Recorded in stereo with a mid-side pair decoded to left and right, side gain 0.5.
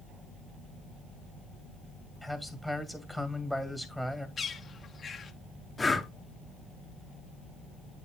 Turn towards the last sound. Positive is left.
turn(degrees=20)